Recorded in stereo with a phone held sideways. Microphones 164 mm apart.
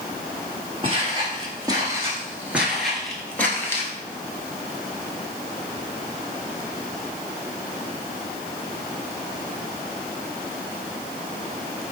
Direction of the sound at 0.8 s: 35° right (ahead or behind).